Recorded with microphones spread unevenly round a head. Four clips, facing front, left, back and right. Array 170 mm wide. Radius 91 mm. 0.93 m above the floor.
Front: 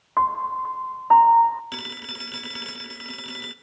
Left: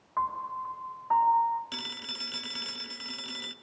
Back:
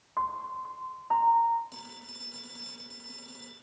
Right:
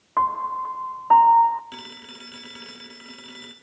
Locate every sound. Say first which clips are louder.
0.2 s a piano: right 9 dB, front 10 dB; 55° right, 1.1 m
1.7 s a phone ringing: right 1 dB, front 10 dB; 15° right, 1.2 m